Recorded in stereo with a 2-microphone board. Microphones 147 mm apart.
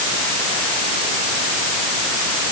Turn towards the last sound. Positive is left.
No sound to turn to.